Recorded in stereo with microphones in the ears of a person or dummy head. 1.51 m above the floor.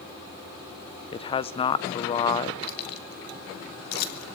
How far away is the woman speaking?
About 0.8 m.